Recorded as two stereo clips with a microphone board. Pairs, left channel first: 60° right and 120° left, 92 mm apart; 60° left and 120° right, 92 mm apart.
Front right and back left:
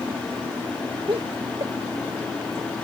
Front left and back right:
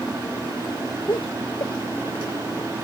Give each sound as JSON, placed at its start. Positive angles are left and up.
{"t": 1.1, "sound": "laughter", "azimuth_deg": 95}